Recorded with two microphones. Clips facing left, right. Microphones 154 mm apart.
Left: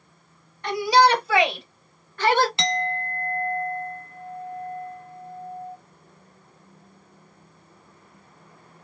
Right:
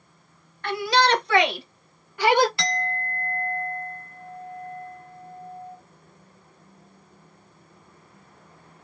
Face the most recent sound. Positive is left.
turn(degrees=20)  # may be behind; listen again after turning